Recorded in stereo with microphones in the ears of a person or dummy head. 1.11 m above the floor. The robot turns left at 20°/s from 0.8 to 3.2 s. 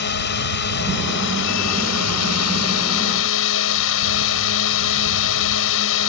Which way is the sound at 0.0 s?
120° left.